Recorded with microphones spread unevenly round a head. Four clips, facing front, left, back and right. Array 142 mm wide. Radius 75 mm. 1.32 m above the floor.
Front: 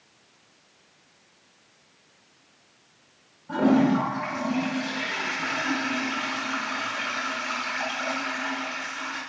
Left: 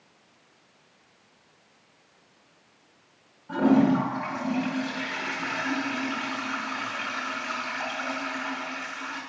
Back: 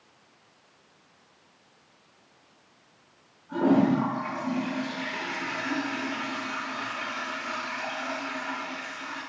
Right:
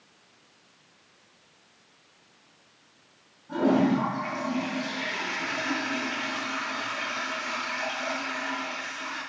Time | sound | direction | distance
3.5 | a toilet flushing | 20° left | 8 m